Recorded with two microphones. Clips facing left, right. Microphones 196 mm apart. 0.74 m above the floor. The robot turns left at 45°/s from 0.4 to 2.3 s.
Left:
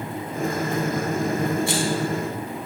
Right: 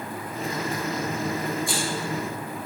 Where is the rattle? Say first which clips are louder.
Left 5 dB; 80° left, 4.5 m.